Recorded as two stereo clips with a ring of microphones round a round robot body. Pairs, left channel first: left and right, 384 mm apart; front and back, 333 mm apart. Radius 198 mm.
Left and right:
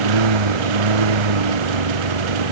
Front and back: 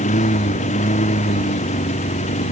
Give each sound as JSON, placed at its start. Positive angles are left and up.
{"t": 0.0, "sound": "a lawn mower", "azimuth_deg": -75}